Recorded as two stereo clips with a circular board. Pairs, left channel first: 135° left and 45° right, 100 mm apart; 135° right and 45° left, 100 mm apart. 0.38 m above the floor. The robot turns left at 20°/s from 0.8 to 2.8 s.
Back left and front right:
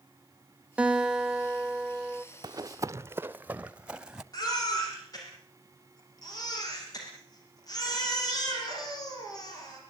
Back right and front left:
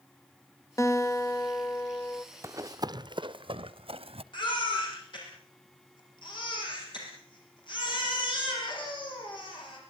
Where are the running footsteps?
10° right, 0.5 m; by 4.2 s 40° left, 1.2 m.